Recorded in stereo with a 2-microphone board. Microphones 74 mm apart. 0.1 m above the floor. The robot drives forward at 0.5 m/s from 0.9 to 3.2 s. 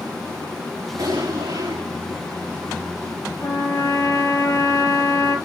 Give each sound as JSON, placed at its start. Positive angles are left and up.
{"t": 1.0, "sound": "an explosion", "side_deg": -80, "distance_m": 7.0}
{"t": 3.4, "sound": "a trumpet", "side_deg": 40, "distance_m": 2.5}